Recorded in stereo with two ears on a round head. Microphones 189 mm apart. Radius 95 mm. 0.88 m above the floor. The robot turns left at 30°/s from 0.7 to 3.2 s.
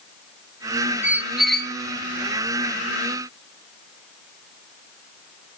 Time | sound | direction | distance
1.0 | a squeak | 10° right (ahead or behind) | 0.7 m